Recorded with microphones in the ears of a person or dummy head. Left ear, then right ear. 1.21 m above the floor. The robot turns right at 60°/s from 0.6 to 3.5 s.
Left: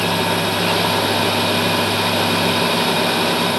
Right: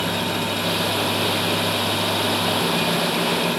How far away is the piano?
No piano in this recording.